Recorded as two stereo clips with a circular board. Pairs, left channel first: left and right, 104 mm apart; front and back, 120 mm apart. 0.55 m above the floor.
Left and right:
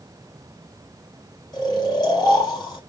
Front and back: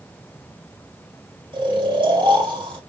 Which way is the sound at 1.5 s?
135° left.